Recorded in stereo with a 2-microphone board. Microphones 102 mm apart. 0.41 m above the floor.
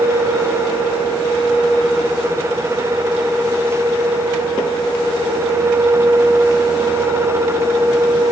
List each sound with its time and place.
Only background noise.